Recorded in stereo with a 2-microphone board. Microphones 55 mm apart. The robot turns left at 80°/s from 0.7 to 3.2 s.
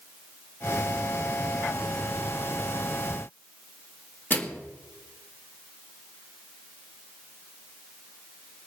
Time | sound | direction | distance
4.3 | a microwave | 35° left (ahead or behind) | 1.5 m